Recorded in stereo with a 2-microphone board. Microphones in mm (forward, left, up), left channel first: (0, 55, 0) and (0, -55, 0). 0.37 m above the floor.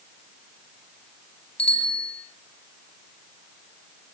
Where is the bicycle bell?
70° left (ahead or behind), 4.5 m.